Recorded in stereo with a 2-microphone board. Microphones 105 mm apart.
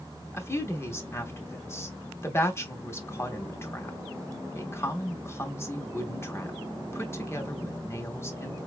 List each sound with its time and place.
0.3 s a woman speaking: 25° left (ahead or behind), 0.9 m